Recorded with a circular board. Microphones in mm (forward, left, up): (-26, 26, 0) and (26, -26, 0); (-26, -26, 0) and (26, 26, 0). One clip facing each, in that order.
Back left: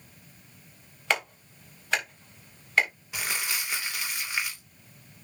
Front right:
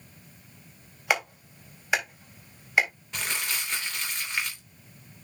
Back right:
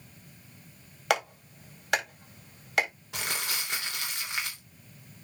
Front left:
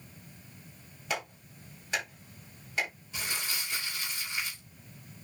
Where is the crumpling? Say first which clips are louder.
Even, back right 3 dB; 140° right, 3 m.